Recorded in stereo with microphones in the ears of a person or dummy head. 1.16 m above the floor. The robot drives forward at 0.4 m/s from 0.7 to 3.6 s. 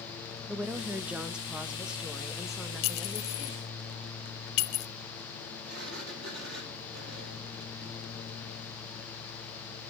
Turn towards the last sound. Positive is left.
turn(degrees=-60)  # may be behind; listen again after turning